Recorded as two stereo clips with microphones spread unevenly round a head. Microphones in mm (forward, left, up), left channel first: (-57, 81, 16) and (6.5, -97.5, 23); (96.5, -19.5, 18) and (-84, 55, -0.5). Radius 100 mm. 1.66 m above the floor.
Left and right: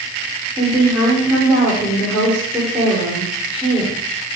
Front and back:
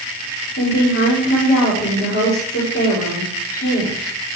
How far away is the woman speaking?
About 5.5 m.